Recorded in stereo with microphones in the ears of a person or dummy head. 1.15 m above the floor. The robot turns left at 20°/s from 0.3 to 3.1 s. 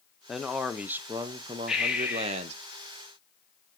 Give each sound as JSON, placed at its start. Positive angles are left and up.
{"t": 0.3, "sound": "a man speaking", "azimuth_deg": 0, "distance_m": 0.5}
{"t": 1.7, "sound": "breathing", "side_deg": 0, "distance_m": 1.1}